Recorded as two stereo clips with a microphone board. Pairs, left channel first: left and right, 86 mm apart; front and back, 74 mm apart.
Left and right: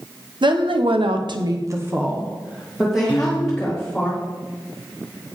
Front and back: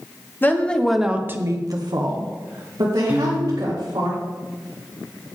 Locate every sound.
0.4 s a woman speaking: 65° right, 1.3 m; by 4.1 s 175° left, 3.5 m
3.1 s a piano: 110° left, 1.2 m